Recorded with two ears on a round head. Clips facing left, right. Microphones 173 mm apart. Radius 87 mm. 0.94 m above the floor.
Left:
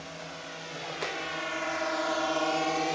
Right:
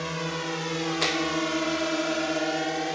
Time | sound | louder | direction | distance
0.0 | a drone | right 11 dB | 70° right (ahead or behind) | ?